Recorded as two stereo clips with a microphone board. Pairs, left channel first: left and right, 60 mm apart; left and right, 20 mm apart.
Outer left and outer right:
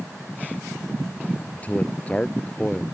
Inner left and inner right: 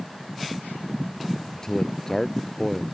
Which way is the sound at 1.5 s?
25° left (ahead or behind).